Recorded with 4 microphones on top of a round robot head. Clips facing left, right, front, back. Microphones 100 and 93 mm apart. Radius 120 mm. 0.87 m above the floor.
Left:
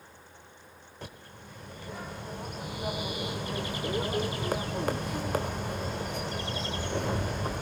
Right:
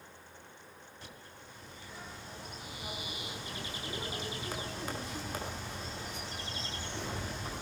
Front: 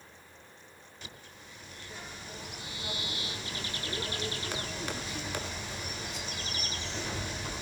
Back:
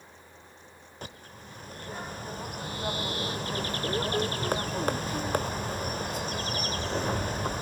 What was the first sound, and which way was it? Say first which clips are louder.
A bird: left 8 dB, back 7 dB; 135° left.